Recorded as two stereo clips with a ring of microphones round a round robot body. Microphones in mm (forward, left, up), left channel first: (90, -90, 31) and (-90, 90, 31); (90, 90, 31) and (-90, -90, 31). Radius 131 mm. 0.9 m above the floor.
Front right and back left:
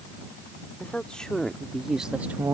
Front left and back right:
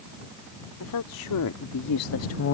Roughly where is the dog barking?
No dog barking in this recording.